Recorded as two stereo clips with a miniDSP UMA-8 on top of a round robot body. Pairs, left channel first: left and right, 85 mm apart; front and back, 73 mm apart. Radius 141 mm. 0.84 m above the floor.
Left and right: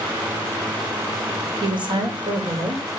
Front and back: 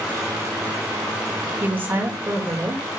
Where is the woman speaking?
115° right, 3.5 m.